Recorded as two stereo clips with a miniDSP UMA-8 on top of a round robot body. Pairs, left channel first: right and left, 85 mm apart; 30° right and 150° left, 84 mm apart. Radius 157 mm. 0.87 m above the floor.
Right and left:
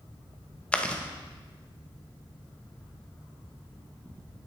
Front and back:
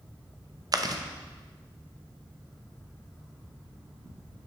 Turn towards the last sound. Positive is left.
turn(degrees=-165)